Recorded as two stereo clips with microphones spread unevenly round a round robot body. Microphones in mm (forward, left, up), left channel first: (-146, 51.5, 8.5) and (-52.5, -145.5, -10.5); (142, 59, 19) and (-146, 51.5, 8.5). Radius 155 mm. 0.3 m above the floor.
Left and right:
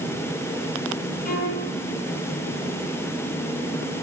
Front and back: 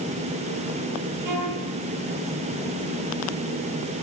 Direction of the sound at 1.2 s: 165° left.